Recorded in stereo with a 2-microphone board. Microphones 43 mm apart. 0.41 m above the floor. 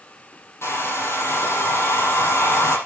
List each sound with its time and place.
0.6 s a hair dryer: 85° left, 6 m